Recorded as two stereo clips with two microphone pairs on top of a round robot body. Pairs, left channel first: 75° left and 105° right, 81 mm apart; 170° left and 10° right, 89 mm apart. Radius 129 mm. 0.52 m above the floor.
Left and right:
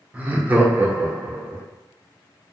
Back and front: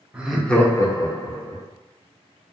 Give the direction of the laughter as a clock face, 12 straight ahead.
12 o'clock.